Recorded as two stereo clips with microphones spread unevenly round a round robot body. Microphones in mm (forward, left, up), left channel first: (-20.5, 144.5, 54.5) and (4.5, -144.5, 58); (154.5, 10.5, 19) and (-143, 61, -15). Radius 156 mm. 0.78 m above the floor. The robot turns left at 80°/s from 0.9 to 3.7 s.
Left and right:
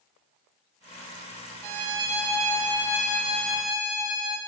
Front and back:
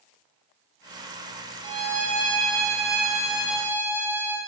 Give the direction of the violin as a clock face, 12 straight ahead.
4 o'clock.